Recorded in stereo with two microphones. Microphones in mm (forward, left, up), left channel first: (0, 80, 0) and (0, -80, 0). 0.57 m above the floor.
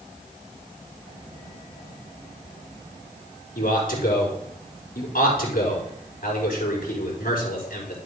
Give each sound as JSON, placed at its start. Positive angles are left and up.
{"t": 3.5, "sound": "a man speaking", "side_deg": 65, "distance_m": 4.0}